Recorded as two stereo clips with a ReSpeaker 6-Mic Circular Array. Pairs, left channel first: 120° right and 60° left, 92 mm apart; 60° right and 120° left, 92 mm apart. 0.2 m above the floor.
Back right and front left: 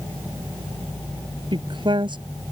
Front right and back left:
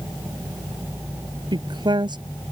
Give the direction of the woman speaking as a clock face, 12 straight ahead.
9 o'clock.